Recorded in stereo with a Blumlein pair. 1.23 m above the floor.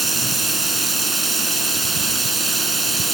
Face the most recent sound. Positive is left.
turn(degrees=-10)